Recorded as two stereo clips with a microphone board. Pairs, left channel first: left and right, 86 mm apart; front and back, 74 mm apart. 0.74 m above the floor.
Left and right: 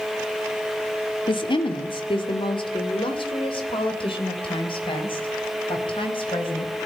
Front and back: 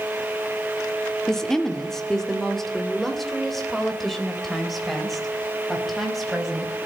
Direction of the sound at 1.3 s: 80° left.